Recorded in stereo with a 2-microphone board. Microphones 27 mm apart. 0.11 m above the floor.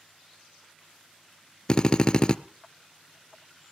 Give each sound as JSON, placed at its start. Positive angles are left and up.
{"t": 1.7, "sound": "a drill", "side_deg": 35, "distance_m": 0.6}